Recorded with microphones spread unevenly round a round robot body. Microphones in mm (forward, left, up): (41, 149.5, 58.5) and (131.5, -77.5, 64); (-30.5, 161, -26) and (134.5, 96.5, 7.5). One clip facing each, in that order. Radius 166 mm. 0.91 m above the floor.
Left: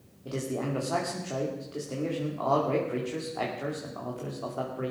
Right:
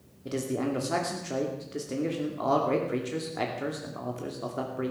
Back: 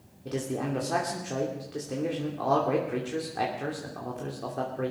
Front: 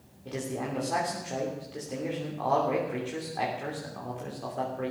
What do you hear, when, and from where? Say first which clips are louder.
0.2 s a man speaking: right 3 dB, back 3 dB; 140° right, 2.5 m